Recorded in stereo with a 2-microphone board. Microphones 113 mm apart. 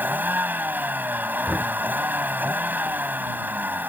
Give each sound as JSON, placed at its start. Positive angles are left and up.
{"t": 0.0, "sound": "a vehicle", "side_deg": -15}
{"t": 1.5, "sound": "knocking", "side_deg": -15}